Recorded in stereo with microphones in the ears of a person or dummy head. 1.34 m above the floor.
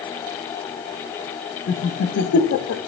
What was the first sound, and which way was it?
Laughter, 80° left.